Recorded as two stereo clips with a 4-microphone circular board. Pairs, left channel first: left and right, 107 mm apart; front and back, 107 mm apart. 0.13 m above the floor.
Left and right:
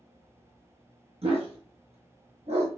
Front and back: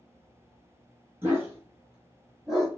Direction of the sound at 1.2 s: 110° right.